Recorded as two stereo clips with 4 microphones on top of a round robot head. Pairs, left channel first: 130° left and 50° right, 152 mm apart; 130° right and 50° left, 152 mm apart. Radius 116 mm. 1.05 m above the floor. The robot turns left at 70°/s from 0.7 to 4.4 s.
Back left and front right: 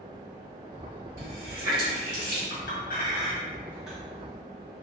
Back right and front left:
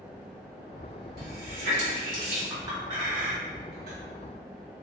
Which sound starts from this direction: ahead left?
A running tap, at 1.2 s.